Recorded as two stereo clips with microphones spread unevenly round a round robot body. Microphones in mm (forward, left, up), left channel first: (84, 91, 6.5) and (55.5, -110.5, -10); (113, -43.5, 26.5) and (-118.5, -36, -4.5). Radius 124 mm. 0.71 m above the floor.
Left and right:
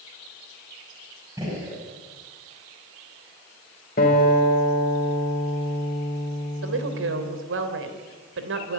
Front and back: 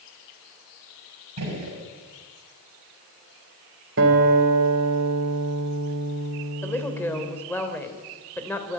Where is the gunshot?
175° right, 5.5 m.